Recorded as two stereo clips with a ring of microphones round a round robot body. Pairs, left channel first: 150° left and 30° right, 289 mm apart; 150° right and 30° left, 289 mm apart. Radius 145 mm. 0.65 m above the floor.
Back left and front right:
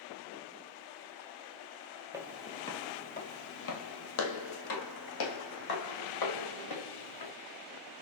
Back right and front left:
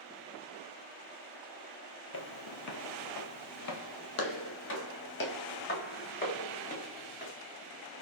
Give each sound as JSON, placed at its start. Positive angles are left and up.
{"t": 2.1, "sound": "footsteps", "azimuth_deg": -110, "distance_m": 1.0}